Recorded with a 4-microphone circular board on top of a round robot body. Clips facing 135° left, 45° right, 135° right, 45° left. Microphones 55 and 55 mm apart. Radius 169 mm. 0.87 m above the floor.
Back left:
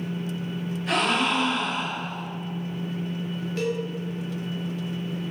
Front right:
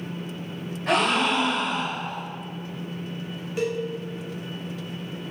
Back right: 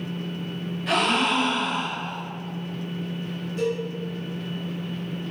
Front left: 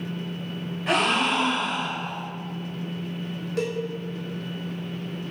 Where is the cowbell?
35° left, 0.9 m.